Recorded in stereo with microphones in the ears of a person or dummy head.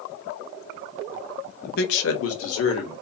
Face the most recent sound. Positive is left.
turn(degrees=65)  # may be behind; listen again after turning